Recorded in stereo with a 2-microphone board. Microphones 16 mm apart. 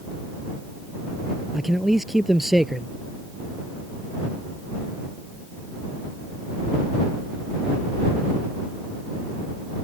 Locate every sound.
1.5 s a man speaking: 15° right (ahead or behind)